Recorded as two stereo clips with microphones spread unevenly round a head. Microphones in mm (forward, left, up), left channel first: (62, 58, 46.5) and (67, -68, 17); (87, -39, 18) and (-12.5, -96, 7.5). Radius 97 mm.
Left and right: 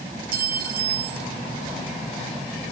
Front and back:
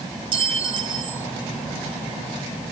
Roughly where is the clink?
Right.